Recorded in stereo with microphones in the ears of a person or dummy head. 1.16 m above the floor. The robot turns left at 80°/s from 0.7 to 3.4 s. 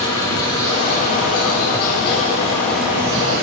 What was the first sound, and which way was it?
An insect, 160° left.